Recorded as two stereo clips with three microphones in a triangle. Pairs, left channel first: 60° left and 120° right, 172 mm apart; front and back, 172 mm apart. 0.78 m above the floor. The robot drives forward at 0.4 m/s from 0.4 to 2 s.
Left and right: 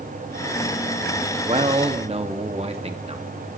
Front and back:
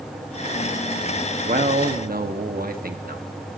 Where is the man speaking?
160° right, 0.9 m; by 3.2 s 165° right, 1.1 m.